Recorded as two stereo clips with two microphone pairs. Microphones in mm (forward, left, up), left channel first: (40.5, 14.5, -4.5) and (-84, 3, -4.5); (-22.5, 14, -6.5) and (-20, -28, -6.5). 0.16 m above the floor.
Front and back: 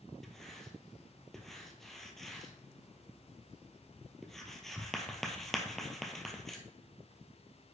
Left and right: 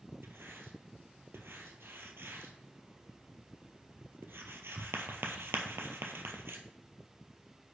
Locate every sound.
0.2 s writing: 85° right, 1.3 m